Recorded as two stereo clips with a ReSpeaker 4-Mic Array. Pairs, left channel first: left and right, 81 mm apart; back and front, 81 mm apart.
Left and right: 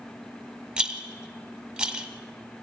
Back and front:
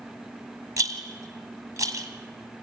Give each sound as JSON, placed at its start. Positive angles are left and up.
{"t": 0.8, "sound": "a rattle", "azimuth_deg": -20, "distance_m": 1.4}